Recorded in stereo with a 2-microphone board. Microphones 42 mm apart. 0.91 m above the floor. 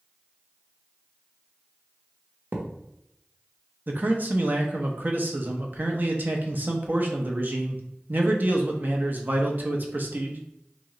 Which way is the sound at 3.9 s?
45° right (ahead or behind).